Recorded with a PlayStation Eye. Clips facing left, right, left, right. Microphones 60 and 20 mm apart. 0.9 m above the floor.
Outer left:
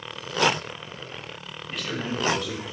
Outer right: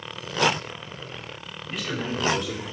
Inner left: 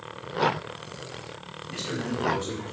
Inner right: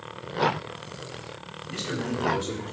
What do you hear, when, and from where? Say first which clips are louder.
1.7 s a man speaking: outer right 1 dB, inner right 1 dB; centre (ahead or behind), 3 m